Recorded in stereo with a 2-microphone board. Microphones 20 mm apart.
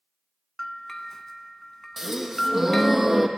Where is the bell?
25° left (ahead or behind), 0.5 m.